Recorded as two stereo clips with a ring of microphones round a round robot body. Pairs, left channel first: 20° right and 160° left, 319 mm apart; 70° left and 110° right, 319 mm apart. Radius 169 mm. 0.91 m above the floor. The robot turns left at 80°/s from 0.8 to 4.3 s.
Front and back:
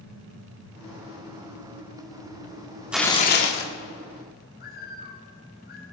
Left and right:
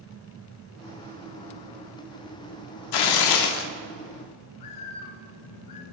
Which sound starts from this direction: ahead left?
A bird, at 4.6 s.